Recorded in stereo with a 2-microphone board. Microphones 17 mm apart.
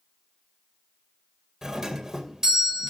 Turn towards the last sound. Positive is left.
turn(degrees=-30)  # may be behind; listen again after turning